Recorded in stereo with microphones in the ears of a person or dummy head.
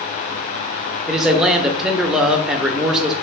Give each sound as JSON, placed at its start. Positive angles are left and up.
{"t": 1.1, "sound": "a man speaking", "side_deg": 0, "distance_m": 0.5}